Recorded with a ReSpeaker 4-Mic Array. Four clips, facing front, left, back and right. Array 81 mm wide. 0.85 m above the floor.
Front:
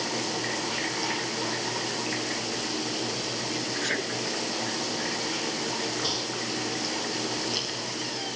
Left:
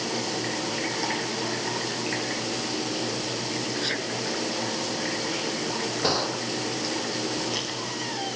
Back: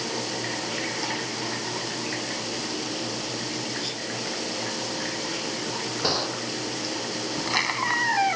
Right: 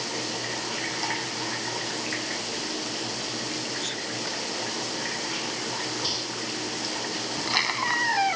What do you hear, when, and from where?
3.8 s a sneeze: 20° left
6.0 s a gunshot: 125° left
7.3 s a squeak: 150° right